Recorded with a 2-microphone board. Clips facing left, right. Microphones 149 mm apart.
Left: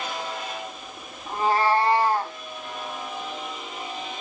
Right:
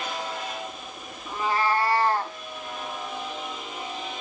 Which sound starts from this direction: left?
A cat meowing, at 1.3 s.